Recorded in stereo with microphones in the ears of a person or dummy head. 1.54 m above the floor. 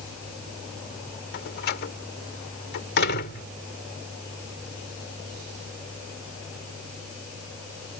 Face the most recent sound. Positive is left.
turn(degrees=60)  # may be behind; listen again after turning